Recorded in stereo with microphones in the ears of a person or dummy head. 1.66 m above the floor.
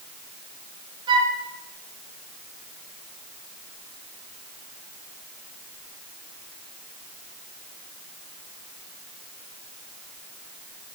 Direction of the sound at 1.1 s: 35° right (ahead or behind).